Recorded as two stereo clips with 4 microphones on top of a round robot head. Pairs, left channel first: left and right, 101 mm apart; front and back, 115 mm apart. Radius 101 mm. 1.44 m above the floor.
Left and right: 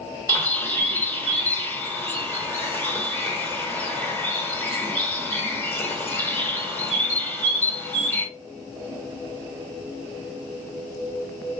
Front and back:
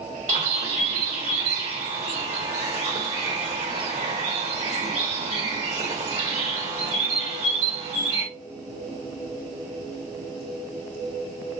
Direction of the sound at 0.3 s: 155° left.